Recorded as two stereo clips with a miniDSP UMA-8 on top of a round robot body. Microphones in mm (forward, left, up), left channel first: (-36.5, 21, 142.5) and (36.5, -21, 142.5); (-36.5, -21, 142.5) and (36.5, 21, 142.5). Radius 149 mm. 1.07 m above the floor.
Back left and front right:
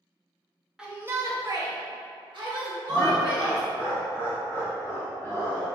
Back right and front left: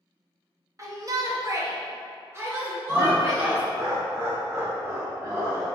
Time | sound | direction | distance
0.8 | a shout | 45° left | 0.8 m
2.9 | laughter | 85° left | 0.8 m